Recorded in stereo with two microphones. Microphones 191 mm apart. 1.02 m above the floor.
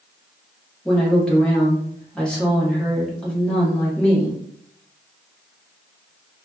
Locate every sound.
0.8 s a woman speaking: 5° left (ahead or behind), 1.2 m